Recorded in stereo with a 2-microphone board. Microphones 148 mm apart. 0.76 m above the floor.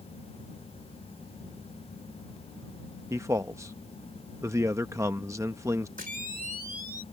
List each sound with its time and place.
3.1 s a man speaking: 20° right (ahead or behind)
6.0 s a camera shutter: 70° right (ahead or behind)